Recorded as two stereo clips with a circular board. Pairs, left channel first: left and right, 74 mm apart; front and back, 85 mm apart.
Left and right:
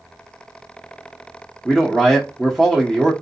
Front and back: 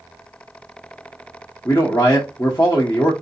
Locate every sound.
1.6 s a man speaking: 15° left, 1.0 m